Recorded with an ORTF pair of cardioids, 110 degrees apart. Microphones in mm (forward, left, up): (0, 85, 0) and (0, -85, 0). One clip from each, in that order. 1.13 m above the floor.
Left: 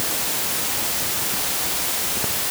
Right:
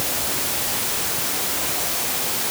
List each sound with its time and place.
Only background noise.